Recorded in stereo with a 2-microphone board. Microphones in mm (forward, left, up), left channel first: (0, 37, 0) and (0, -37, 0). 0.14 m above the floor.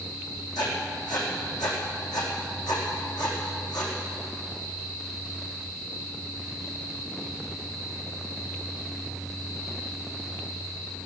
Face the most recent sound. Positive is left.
turn(degrees=65)  # may be behind; listen again after turning